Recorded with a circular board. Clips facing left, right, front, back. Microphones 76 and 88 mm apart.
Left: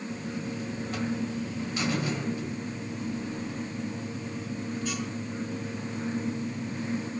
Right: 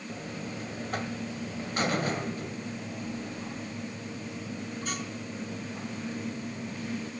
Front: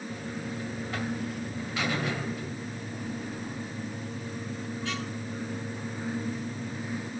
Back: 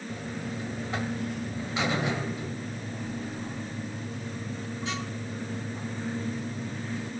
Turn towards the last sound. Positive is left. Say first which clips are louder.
# left 2 dB, back 2 dB
turn(degrees=-115)